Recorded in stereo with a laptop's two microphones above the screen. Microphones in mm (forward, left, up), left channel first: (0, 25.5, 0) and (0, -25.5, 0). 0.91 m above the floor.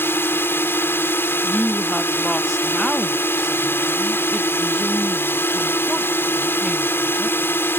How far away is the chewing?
No chewing in this recording.